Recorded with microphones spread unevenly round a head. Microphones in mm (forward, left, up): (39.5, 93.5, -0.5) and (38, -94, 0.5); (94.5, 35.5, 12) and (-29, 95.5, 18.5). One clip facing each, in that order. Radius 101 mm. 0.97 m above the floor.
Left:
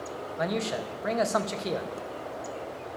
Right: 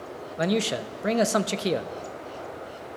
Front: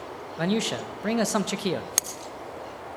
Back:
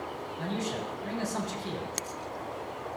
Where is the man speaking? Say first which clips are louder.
Right 5 dB, front 8 dB; 35° right, 0.7 m.